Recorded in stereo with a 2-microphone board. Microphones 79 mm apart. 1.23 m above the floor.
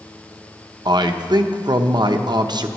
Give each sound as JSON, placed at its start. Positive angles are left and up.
{"t": 0.8, "sound": "a man speaking", "side_deg": -60, "distance_m": 0.8}